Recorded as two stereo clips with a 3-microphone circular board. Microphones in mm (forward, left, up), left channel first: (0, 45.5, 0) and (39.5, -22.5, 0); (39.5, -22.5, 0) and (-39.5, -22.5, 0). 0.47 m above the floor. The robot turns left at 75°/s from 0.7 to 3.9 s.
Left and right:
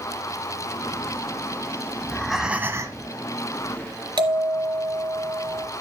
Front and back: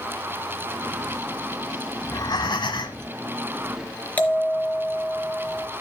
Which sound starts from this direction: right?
A bell, at 4.2 s.